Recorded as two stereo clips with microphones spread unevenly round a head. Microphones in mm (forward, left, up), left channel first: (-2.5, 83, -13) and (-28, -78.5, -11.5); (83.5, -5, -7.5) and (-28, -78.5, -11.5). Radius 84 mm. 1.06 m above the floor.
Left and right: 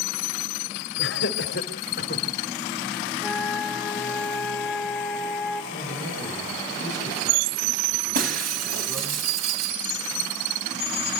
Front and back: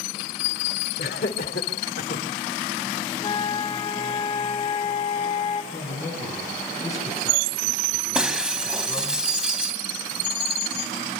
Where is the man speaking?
30° right, 9.5 m.